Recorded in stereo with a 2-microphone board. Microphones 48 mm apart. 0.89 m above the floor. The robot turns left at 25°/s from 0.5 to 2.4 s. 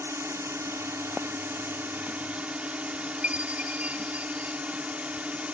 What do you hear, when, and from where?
0.0 s a drone: 100° right; by 5.5 s 145° right
3.2 s a chime: 30° right (ahead or behind)